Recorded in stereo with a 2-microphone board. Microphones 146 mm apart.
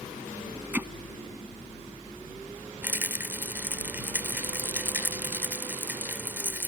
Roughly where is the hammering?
Centre.